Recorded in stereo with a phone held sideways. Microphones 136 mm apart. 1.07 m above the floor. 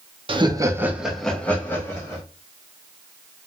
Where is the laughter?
40° right (ahead or behind), 0.6 m; by 2.2 s 20° left (ahead or behind), 1.2 m.